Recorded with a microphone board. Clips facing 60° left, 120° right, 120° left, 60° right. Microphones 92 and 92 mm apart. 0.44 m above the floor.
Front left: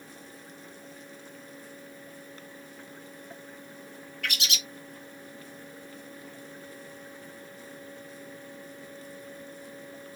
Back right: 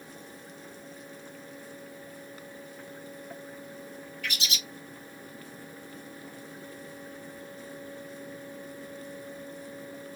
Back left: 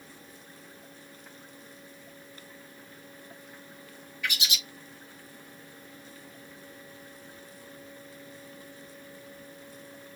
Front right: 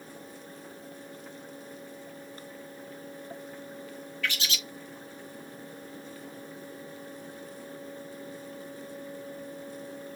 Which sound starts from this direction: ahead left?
A bird, at 4.2 s.